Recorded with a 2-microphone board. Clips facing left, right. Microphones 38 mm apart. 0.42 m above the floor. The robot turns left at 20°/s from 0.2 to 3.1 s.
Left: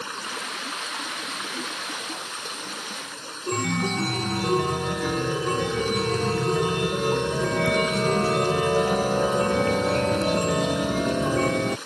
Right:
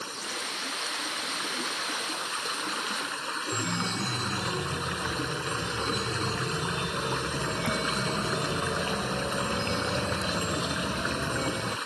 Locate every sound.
0.0 s running water: 35° left; by 11.9 s 25° right
3.5 s a chime: 60° left (ahead or behind)